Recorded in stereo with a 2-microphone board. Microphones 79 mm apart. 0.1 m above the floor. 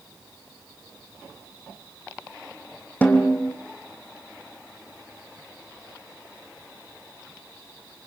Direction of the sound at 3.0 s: 20° left (ahead or behind).